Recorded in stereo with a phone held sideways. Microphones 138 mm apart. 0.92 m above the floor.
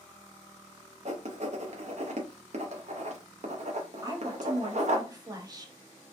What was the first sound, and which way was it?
Writing, 55° right (ahead or behind).